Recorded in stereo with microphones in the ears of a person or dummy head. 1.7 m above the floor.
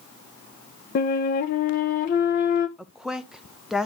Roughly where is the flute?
Left.